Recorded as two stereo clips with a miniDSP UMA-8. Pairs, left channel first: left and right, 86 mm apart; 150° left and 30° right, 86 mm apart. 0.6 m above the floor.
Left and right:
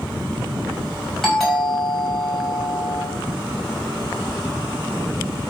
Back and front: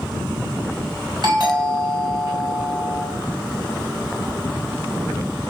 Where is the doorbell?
5° left, 5.5 m.